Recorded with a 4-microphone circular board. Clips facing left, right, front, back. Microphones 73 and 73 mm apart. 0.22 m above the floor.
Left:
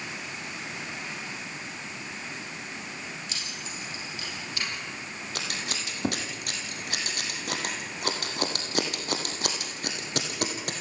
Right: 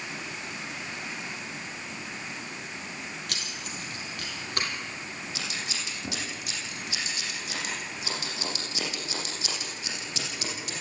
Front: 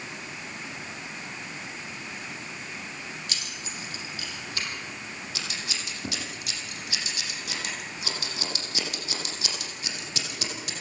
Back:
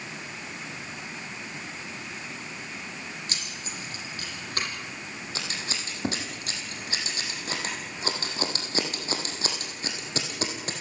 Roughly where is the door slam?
I don't hear a door slam.